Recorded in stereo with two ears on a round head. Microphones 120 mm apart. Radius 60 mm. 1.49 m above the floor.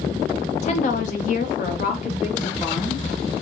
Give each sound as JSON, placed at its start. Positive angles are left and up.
{"t": 0.6, "sound": "a woman speaking", "side_deg": 50, "distance_m": 0.8}